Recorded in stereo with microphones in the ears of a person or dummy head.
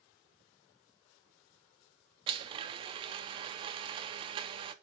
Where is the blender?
25° right (ahead or behind), 0.5 m.